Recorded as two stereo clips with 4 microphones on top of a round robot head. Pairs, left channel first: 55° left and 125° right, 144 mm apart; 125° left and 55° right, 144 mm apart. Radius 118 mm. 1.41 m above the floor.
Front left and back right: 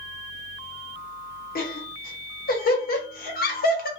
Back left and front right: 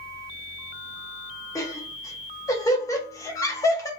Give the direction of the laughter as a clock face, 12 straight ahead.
10 o'clock.